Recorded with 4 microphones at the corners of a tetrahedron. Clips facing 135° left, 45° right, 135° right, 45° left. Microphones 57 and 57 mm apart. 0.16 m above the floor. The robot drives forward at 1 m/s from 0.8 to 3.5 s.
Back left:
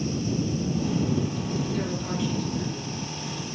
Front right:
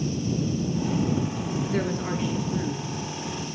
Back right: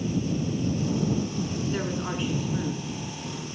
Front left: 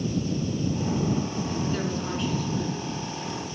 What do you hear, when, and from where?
1.7 s a woman speaking: 60° right, 2 m; by 3.5 s 120° right, 2 m